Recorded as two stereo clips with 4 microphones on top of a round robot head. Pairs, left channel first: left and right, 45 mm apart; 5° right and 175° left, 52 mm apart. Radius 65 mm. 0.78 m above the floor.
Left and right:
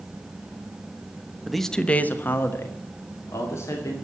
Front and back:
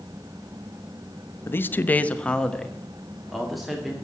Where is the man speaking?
5° right, 1.0 m; by 3.9 s 90° left, 3 m.